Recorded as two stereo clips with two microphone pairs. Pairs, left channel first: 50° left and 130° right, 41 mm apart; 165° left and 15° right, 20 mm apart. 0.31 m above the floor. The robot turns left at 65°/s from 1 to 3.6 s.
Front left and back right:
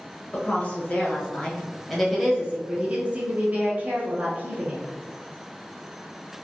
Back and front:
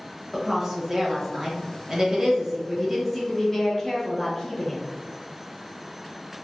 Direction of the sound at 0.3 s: 25° left.